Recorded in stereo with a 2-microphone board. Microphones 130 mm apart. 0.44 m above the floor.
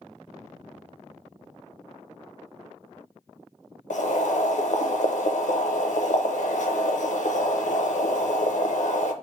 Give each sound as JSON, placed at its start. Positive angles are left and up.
{"t": 3.9, "sound": "boiling", "side_deg": 70, "distance_m": 0.6}